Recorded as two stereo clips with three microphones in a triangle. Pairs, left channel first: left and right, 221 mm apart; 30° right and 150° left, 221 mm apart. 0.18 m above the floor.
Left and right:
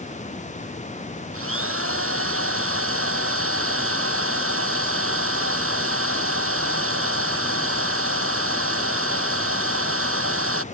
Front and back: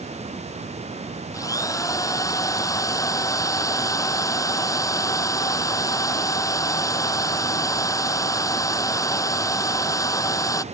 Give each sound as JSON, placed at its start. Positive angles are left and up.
{"t": 1.3, "sound": "a drill", "azimuth_deg": -105}